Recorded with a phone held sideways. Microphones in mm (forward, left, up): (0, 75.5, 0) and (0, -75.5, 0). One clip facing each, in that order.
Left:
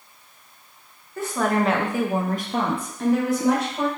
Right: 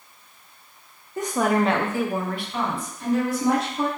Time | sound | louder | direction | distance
1.2 | a woman speaking | right 1 dB | 20° right (ahead or behind) | 0.7 m